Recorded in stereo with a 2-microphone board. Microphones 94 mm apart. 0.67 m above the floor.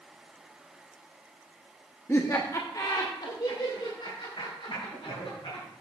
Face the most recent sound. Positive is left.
turn(degrees=80)